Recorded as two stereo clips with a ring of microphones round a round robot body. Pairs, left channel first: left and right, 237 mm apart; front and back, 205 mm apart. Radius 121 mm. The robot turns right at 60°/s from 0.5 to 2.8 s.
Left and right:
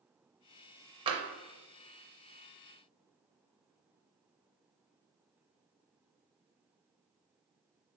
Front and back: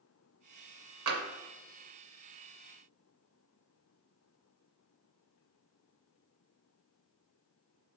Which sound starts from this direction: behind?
Tapping, at 1.1 s.